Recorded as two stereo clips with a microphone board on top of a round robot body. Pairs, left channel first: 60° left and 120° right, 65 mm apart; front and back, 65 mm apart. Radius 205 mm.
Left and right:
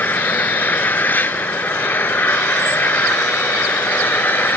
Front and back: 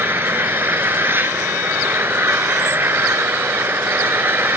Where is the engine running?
120° left.